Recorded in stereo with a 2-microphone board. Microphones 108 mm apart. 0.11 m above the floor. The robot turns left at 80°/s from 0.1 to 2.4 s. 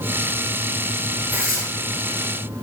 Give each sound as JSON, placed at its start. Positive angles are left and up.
{"t": 1.3, "sound": "tearing paper", "side_deg": -15, "distance_m": 1.0}